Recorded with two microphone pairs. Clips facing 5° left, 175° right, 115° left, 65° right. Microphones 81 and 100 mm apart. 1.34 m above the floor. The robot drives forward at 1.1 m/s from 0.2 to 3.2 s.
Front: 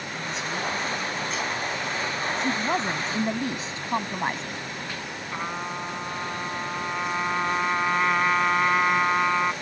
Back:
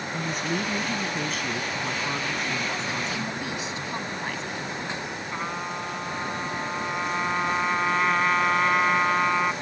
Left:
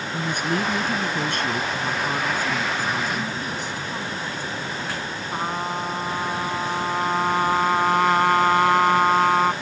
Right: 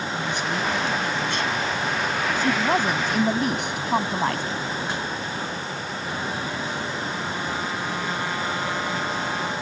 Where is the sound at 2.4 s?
40° right; by 4.6 s 45° right.